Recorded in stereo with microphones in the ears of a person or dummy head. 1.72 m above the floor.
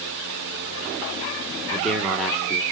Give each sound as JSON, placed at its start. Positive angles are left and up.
{"t": 1.7, "sound": "a man speaking", "side_deg": 0, "distance_m": 1.6}